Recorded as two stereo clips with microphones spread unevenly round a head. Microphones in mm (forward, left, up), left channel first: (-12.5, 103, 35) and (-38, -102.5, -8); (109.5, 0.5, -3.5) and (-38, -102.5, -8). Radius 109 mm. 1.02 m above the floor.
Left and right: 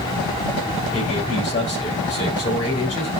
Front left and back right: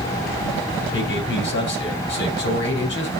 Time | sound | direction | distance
0.9 | a man speaking | 20° left | 6 m